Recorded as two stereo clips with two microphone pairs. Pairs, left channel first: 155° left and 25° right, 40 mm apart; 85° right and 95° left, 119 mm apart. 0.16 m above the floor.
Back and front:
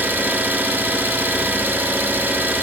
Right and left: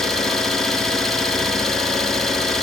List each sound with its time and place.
0.0 s an engine running: straight ahead, 0.7 m